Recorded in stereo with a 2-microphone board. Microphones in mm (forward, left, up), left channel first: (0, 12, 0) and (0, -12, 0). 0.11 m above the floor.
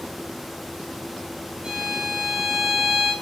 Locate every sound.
1.6 s a violin: 35° right (ahead or behind), 8.5 m